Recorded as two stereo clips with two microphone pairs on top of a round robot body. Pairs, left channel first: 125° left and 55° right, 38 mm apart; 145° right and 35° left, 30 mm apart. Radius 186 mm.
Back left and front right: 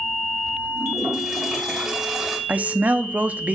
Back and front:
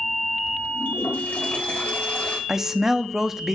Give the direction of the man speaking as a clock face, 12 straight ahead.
1 o'clock.